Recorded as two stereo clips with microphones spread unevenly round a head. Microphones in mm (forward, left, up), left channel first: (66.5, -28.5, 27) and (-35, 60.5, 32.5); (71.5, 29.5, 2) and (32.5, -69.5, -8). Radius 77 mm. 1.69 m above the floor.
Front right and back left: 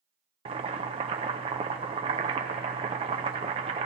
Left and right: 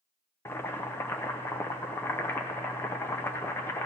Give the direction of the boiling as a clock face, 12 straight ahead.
8 o'clock.